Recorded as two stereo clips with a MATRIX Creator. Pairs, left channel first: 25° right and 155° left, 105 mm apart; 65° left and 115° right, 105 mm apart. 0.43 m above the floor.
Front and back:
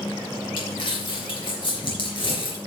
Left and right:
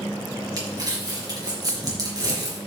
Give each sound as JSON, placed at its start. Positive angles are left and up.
{"t": 0.6, "sound": "crumpling", "azimuth_deg": -60, "distance_m": 4.0}